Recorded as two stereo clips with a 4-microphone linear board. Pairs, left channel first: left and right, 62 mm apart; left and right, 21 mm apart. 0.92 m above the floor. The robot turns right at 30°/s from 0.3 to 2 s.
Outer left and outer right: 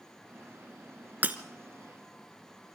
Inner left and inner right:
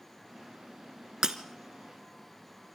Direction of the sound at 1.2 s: 30° right (ahead or behind).